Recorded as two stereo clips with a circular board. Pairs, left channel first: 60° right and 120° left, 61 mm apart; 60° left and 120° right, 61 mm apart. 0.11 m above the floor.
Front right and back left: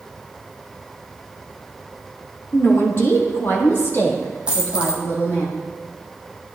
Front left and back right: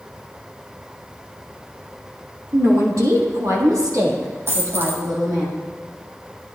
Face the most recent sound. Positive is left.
turn(degrees=-165)